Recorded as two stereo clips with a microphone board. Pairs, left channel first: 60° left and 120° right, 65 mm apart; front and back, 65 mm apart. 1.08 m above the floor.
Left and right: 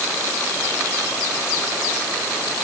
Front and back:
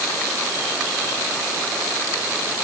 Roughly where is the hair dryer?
I don't hear a hair dryer.